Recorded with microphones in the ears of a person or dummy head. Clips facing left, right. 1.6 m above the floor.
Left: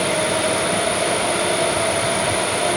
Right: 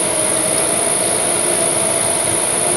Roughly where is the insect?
Centre.